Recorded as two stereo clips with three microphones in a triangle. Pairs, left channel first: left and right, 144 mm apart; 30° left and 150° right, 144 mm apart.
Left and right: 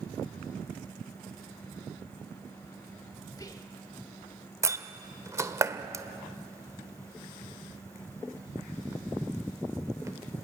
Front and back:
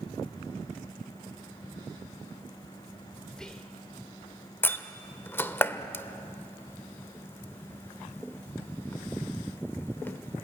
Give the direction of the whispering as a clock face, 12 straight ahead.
8 o'clock.